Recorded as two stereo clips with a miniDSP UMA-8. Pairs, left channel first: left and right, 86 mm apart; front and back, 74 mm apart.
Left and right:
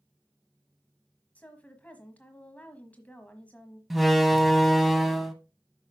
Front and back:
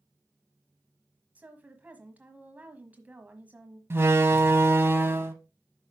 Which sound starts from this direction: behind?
A door slam, at 3.9 s.